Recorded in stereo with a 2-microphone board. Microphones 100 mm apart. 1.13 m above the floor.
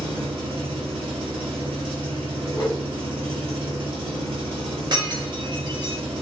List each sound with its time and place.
0.0 s an engine running: 60° right (ahead or behind), 1.4 m
2.5 s a whoosh: 50° left (ahead or behind), 0.8 m
4.9 s breaking glass: 45° right (ahead or behind), 0.6 m